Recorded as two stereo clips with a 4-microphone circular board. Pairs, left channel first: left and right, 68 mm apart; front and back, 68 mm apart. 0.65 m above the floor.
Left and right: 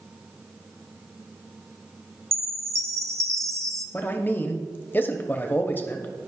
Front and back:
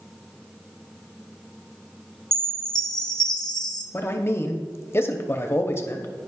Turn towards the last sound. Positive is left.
turn(degrees=40)